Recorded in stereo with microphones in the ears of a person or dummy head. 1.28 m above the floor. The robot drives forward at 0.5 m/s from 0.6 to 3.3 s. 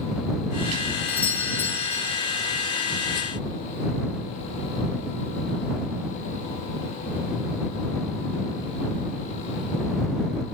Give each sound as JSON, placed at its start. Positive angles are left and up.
{"t": 1.1, "sound": "a doorbell", "side_deg": 5, "distance_m": 2.0}